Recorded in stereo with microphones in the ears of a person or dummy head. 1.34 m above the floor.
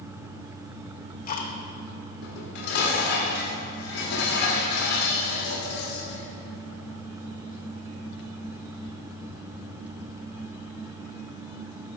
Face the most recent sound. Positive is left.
turn(degrees=75)  # may be behind; listen again after turning